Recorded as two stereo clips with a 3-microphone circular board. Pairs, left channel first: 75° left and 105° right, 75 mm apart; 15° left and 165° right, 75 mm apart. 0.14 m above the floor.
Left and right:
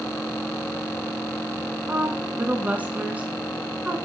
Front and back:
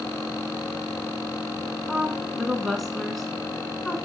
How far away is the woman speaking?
About 1.2 m.